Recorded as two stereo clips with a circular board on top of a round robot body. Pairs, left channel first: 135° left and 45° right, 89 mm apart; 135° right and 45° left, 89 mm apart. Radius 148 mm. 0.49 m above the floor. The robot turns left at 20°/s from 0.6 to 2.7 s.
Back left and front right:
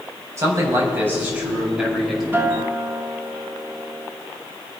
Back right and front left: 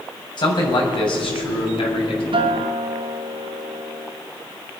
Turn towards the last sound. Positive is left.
turn(degrees=15)